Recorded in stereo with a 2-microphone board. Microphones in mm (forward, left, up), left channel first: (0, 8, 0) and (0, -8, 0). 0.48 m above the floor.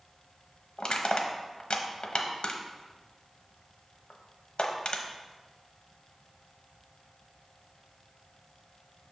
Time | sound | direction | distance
0.8 | crushing | 65° left (ahead or behind) | 0.8 m